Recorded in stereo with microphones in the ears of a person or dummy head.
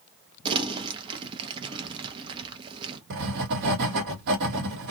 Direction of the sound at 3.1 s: 60° right (ahead or behind).